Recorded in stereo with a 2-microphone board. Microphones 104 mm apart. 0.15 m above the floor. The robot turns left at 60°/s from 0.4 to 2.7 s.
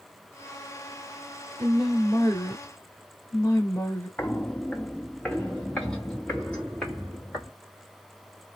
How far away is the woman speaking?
About 1.2 m.